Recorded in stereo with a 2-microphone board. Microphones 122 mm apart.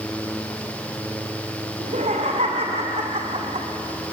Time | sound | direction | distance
1.8 | laughter | 75° right (ahead or behind) | 3 m